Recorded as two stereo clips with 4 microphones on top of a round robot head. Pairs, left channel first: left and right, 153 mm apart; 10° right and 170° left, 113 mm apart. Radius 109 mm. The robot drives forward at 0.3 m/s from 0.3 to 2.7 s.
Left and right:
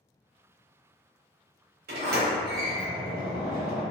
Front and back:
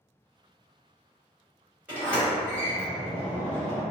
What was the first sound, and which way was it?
A sliding door, 105° right.